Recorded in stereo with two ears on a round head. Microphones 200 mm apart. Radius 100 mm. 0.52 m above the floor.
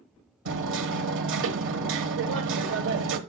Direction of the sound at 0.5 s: 60° right (ahead or behind).